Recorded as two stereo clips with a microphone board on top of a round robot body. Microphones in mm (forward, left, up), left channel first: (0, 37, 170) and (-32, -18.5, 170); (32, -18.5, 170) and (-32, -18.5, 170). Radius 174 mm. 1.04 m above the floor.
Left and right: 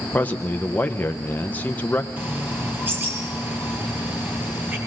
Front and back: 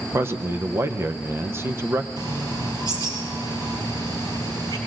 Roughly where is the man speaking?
Behind left.